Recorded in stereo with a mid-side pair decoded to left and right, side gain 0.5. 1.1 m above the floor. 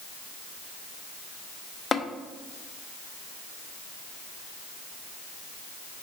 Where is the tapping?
30° left, 0.5 m.